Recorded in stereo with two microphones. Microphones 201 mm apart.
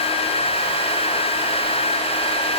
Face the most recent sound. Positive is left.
No sound to turn to.